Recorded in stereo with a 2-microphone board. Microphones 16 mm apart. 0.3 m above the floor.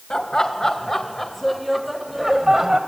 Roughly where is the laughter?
Left.